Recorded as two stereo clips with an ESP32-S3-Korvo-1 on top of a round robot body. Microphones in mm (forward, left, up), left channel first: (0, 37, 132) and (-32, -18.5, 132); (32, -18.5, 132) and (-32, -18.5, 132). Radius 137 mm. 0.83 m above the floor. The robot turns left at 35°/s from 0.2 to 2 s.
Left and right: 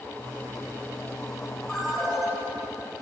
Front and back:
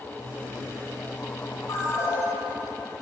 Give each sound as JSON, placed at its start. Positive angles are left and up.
{"t": 1.7, "sound": "a ringtone", "azimuth_deg": -20, "distance_m": 6.5}